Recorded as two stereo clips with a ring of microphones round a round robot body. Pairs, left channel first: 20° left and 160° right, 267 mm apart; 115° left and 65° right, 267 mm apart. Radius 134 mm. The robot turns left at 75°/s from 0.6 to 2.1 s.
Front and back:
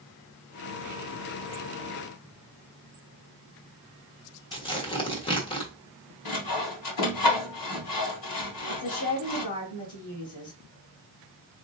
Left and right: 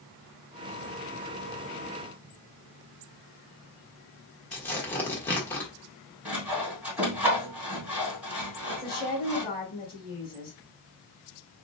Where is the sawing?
20° left, 2.5 m.